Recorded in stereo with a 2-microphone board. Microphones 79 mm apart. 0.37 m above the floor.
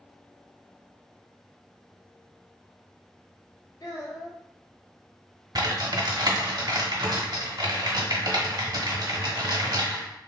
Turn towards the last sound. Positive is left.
turn(degrees=-65)  # may be behind; listen again after turning